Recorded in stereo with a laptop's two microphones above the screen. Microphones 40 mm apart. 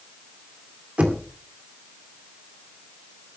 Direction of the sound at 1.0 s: 35° right (ahead or behind).